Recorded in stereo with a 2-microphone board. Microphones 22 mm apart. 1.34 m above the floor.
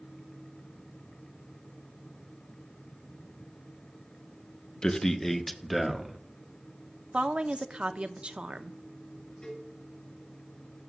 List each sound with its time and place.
4.8 s a man speaking: 40° left (ahead or behind), 0.9 m; by 6.2 s 10° right (ahead or behind), 1.8 m
7.1 s a woman speaking: 60° right (ahead or behind), 0.7 m
9.4 s a cowbell: 40° left (ahead or behind), 5.5 m